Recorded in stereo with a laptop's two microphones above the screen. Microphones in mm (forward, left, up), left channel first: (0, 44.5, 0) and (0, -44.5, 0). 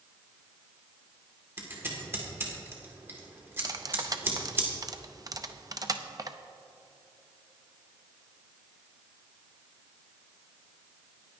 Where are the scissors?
25° right (ahead or behind), 1.7 m.